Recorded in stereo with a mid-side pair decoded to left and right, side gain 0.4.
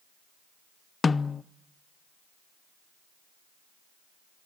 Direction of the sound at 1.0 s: 35° left.